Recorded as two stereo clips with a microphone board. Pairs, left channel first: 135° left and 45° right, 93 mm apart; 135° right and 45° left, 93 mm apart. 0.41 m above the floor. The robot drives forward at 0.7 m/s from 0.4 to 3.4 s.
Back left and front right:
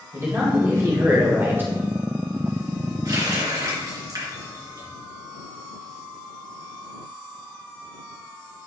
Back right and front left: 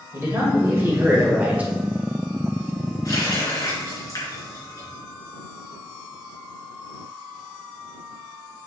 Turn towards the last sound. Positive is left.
turn(degrees=-90)